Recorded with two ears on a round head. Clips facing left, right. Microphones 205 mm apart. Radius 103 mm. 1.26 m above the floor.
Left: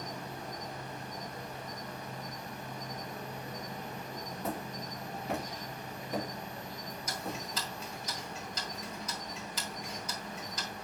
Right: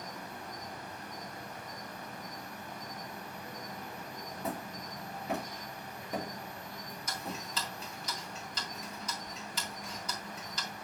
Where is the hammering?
Centre (ahead or behind), 2.5 m.